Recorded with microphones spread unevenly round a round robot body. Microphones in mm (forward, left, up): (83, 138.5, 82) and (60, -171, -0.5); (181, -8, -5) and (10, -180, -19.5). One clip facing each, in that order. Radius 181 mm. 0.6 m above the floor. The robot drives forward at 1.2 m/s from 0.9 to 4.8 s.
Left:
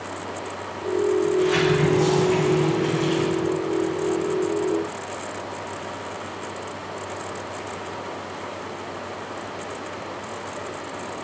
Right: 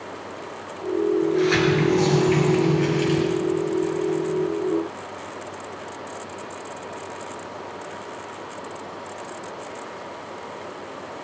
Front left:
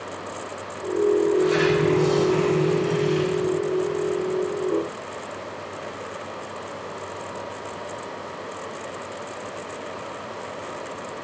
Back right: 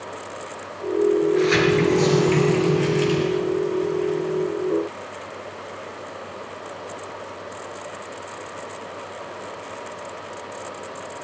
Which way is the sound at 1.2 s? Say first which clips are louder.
Even, back right 1 dB; 125° right.